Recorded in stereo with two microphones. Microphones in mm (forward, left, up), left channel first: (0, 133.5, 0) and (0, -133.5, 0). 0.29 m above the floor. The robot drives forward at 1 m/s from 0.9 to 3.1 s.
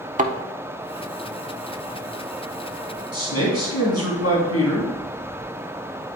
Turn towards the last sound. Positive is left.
turn(degrees=65)  # may be behind; listen again after turning